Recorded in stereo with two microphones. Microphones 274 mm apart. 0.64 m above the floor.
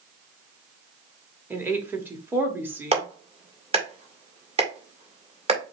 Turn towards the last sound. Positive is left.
turn(degrees=-20)  # may be behind; listen again after turning